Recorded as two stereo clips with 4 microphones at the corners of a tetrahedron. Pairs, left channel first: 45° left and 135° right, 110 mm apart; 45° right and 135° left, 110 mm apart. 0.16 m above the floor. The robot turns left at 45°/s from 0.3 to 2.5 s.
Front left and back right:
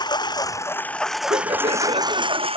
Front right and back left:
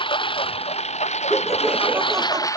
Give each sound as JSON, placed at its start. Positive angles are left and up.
{"t": 0.0, "sound": "a lawn mower", "azimuth_deg": -5}
{"t": 1.3, "sound": "laughter", "azimuth_deg": -125}